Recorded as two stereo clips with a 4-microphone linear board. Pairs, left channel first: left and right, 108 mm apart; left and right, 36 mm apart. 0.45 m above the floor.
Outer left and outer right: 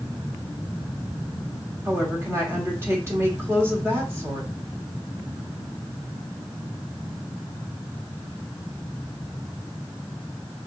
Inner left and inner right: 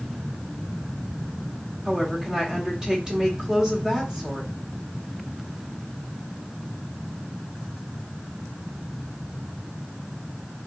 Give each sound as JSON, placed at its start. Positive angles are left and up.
{"t": 1.9, "sound": "a woman speaking", "side_deg": -25, "distance_m": 1.3}